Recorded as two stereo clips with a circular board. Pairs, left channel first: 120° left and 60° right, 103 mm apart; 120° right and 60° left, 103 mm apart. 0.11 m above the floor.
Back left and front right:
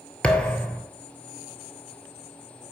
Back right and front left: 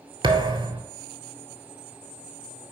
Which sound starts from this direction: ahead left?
A thud, at 0.2 s.